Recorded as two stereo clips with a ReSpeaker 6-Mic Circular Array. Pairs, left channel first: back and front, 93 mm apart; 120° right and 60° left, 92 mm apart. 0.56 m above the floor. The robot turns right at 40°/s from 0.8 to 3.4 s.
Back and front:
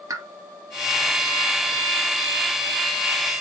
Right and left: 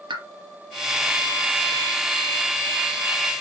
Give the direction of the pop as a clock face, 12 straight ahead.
10 o'clock.